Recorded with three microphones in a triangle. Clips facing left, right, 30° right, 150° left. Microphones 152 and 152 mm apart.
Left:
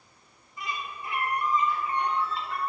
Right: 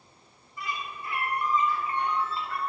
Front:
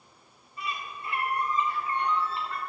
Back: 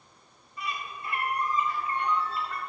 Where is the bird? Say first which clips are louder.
Even, even; 25° left, 2 m.